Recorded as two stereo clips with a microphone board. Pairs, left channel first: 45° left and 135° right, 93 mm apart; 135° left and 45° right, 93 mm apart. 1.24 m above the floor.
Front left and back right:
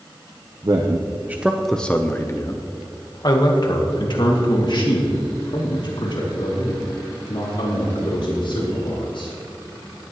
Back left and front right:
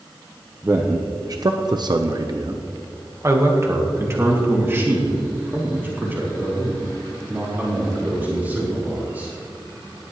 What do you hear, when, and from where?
0.6 s a man speaking: 105° right, 0.9 m; by 9.3 s 25° left, 5.5 m